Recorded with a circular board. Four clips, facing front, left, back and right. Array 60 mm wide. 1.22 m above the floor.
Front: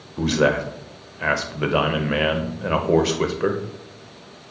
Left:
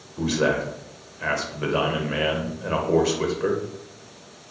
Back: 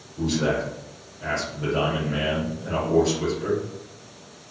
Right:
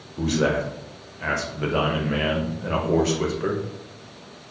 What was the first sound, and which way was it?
A man speaking, 5° left.